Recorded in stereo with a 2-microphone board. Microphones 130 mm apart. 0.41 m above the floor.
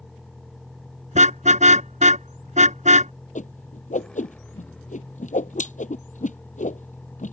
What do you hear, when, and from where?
0.0 s a vehicle: centre (ahead or behind); by 7.3 s 10° left (ahead or behind)
1.1 s a car horn: 75° right (ahead or behind)
3.4 s a whoosh: 85° left